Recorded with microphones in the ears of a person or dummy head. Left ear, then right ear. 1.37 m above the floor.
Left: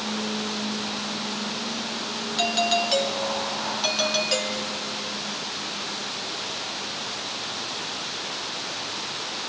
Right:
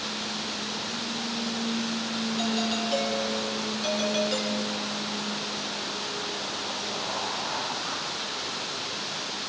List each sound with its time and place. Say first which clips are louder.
2.4 s a doorbell: left 9 dB; 25° left (ahead or behind), 2.5 m